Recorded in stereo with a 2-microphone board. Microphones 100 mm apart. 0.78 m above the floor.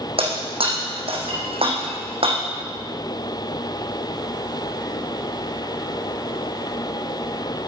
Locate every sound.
0.2 s breaking glass: 70° right (ahead or behind), 4 m